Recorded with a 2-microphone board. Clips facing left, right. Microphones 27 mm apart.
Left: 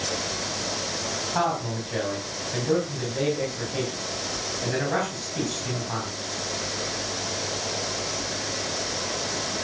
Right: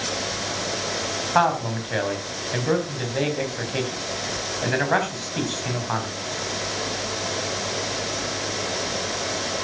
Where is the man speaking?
40° right (ahead or behind), 3.5 m.